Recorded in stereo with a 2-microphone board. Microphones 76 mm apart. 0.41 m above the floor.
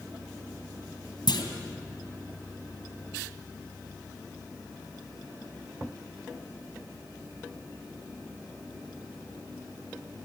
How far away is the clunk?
About 2.5 m.